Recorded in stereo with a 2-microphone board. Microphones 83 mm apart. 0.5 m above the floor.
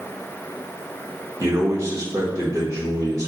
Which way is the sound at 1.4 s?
40° right (ahead or behind).